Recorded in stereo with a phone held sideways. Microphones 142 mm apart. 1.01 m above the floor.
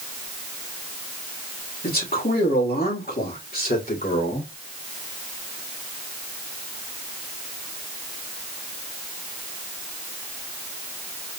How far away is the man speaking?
About 3 m.